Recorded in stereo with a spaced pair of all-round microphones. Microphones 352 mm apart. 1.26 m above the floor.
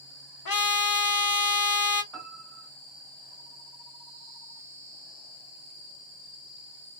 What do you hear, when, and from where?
0.5 s a trumpet: 75° left (ahead or behind), 0.6 m
2.1 s a piano: centre (ahead or behind), 2.0 m